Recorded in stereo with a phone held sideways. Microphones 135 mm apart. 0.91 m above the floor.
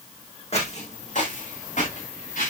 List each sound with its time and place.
0.5 s footsteps: 50° left (ahead or behind), 2.5 m; by 2.5 s 70° left (ahead or behind), 5.5 m